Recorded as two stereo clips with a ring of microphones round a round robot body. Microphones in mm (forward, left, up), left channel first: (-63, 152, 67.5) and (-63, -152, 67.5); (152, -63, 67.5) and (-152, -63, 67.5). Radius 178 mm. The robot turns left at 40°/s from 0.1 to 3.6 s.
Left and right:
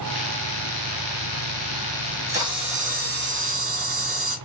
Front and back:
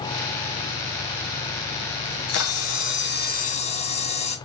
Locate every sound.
2.0 s a camera shutter: straight ahead, 1.1 m; by 4.4 s 65° right, 1.1 m